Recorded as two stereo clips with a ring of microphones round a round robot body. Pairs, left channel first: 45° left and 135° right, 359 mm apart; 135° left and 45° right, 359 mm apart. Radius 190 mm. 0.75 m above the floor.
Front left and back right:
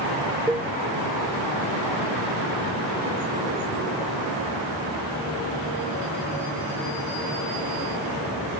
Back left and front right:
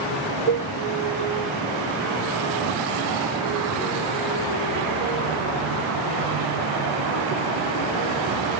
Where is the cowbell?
50° right.